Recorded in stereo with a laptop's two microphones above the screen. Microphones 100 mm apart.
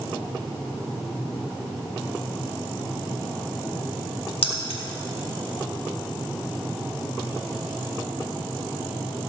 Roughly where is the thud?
No thud in this recording.